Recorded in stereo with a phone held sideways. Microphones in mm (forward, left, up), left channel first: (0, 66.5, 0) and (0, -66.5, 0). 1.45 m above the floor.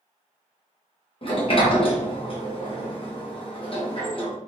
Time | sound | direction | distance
1.2 | a sliding door | 40° left (ahead or behind) | 1.0 m